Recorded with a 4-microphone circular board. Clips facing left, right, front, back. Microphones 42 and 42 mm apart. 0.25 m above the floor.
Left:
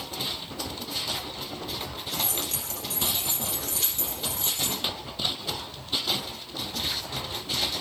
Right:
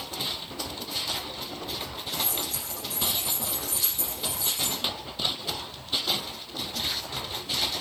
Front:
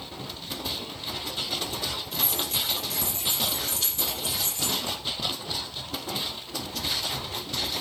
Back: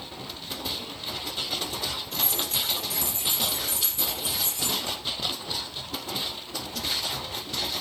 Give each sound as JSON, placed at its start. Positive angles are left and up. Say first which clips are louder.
{"t": 2.1, "sound": "keys jangling", "louder": "even, even", "azimuth_deg": 90, "distance_m": 4.0}